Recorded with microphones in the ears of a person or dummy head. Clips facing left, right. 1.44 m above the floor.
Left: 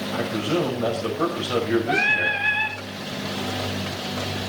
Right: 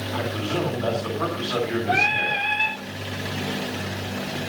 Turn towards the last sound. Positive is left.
turn(degrees=20)  # may be behind; listen again after turning